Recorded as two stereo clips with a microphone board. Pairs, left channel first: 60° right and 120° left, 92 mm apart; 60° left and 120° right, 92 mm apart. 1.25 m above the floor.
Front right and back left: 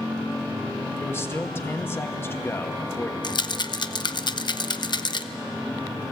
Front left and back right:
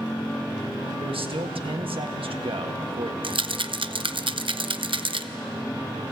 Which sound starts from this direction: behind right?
A man speaking, at 1.0 s.